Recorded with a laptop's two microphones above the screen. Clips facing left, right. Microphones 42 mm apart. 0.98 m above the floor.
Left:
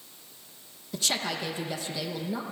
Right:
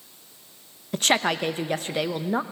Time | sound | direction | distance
0.9 | a woman speaking | 50° right (ahead or behind) | 0.8 m